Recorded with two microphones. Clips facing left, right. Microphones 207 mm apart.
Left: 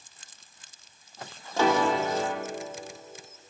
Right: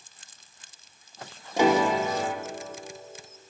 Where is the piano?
15° right (ahead or behind), 1.0 m.